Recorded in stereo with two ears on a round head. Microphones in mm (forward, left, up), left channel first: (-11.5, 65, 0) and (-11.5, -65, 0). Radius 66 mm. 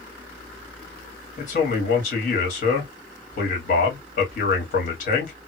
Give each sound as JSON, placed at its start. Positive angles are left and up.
{"t": 1.4, "sound": "a man speaking", "side_deg": 60, "distance_m": 1.6}